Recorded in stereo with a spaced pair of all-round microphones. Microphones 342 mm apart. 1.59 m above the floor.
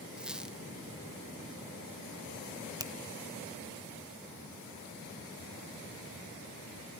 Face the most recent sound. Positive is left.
turn(degrees=-10)  # may be behind; listen again after turning